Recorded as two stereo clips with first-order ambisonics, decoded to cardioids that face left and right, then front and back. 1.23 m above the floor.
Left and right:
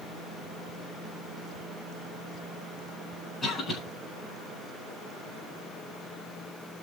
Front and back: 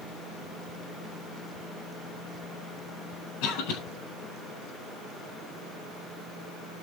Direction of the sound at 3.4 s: 5° left.